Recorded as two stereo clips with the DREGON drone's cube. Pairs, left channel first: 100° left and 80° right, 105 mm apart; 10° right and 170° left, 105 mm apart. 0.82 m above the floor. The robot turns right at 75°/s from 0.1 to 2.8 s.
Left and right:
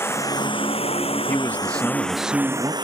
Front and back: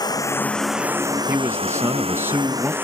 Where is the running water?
35° left; by 2.8 s 120° right.